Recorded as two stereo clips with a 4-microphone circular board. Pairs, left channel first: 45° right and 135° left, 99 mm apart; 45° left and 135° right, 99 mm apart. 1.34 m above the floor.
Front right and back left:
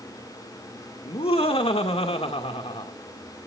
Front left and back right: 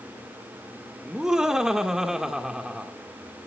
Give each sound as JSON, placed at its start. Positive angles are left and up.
{"t": 1.1, "sound": "laughter", "azimuth_deg": -50, "distance_m": 1.9}